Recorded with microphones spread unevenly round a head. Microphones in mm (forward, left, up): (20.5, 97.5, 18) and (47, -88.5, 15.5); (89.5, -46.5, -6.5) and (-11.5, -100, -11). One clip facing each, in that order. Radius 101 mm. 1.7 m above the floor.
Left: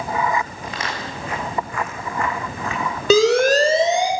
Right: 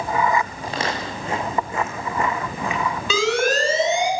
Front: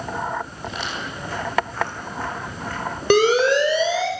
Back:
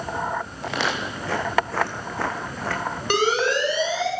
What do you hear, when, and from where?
0.6 s footsteps: 145° right, 4.5 m; by 4.1 s 170° right, 4 m
3.1 s a siren: 45° left, 6 m; by 4.1 s 40° left, 6.5 m